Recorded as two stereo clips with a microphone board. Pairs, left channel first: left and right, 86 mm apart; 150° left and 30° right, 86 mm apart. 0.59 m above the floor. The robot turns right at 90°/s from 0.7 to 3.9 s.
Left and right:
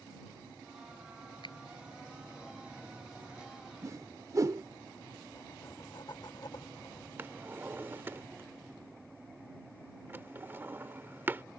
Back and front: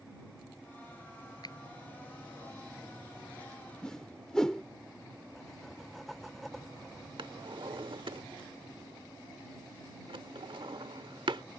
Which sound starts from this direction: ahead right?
A drawer, at 7.2 s.